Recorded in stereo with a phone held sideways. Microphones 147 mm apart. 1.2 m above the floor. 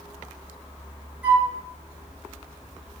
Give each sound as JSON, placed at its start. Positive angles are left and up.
{"t": 1.2, "sound": "a flute", "side_deg": -15, "distance_m": 2.5}